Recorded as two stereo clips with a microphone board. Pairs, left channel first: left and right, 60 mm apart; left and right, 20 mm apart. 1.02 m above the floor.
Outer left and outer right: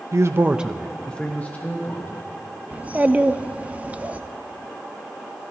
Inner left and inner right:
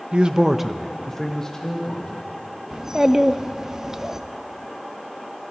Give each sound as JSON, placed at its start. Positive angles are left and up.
{"t": 0.1, "sound": "a man speaking", "side_deg": -60, "distance_m": 0.7}
{"t": 2.7, "sound": "a child speaking", "side_deg": -25, "distance_m": 0.5}